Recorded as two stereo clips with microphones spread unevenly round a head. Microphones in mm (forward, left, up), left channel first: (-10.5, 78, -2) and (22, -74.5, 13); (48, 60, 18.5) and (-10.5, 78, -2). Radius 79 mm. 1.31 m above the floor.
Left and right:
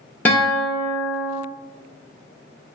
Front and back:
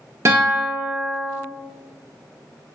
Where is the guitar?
175° left, 0.7 m.